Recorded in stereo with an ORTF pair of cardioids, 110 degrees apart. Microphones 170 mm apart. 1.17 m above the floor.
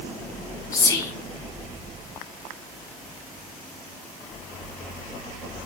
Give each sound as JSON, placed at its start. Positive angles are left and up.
{"t": 0.7, "sound": "whispering", "azimuth_deg": 20, "distance_m": 0.7}